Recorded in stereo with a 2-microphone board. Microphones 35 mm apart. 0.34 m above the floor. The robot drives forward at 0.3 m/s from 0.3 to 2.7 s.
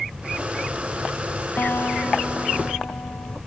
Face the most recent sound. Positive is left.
turn(degrees=85)